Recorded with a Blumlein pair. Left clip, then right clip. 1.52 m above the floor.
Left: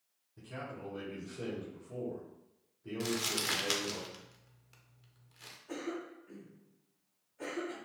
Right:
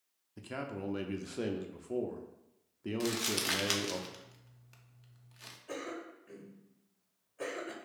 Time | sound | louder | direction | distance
0.4 | a man speaking | right 4 dB | 60° right | 0.6 m
3.0 | crumpling | even | 5° right | 0.6 m
5.7 | a cough | left 1 dB | 25° right | 0.9 m